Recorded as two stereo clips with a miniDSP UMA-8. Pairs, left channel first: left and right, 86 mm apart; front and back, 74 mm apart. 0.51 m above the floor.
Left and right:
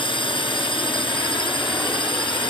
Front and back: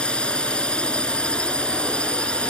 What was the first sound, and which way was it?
A drone, 75° left.